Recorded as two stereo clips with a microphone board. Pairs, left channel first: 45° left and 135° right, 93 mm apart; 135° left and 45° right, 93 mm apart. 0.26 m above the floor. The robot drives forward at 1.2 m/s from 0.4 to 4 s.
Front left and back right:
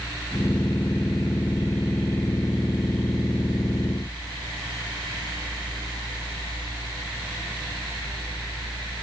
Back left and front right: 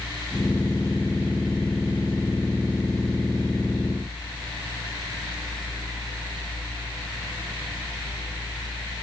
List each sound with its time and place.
Only background noise.